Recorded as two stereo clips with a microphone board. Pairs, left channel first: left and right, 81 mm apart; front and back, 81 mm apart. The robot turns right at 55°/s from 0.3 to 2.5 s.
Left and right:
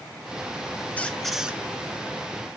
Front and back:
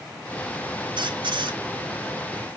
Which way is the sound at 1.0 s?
160° left.